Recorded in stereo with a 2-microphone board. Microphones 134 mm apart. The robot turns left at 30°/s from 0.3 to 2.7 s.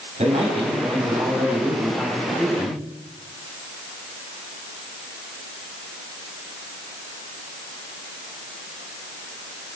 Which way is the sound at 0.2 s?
125° right.